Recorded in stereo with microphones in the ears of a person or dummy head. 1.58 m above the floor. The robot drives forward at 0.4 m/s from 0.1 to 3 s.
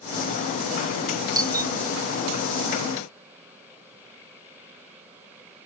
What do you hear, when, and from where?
1.4 s a doorbell: 15° right (ahead or behind)